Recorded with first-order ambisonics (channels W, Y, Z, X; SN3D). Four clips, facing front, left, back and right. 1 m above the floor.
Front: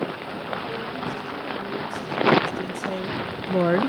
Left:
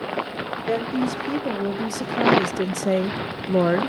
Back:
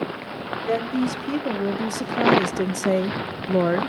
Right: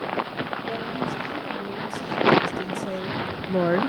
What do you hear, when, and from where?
0.7 s a woman speaking: 140° left, 3 m; by 3.9 s 20° right, 0.5 m